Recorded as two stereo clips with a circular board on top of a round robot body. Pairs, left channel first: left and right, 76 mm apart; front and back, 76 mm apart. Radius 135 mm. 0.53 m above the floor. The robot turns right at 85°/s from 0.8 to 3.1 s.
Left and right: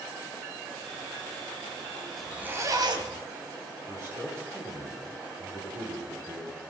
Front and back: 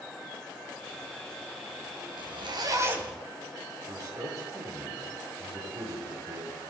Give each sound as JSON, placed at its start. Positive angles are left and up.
{"t": 2.2, "sound": "a zipper", "azimuth_deg": 180, "distance_m": 2.0}
{"t": 3.9, "sound": "a man speaking", "azimuth_deg": -140, "distance_m": 7.0}